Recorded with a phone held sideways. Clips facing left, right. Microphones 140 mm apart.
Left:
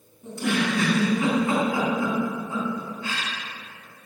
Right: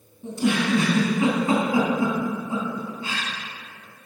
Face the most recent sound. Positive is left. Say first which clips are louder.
# right 2 dB
turn(degrees=-25)  # may be behind; listen again after turning